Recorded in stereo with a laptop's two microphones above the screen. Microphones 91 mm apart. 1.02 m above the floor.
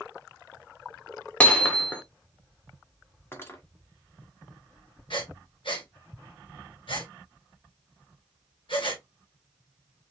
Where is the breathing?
70° left (ahead or behind), 1.8 m.